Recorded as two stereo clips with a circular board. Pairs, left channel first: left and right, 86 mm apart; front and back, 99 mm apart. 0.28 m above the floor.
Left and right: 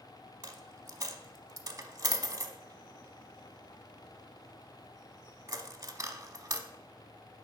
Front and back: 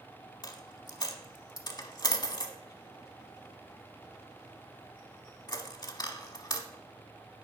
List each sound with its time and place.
0.4 s a dropped coin: 45° right, 0.9 m